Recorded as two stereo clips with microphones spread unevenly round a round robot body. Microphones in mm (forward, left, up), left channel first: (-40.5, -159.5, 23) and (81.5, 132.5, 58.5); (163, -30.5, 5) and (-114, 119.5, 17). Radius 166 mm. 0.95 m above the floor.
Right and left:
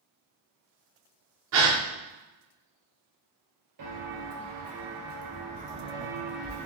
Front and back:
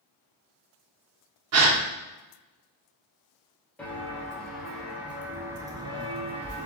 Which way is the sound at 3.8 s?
55° left.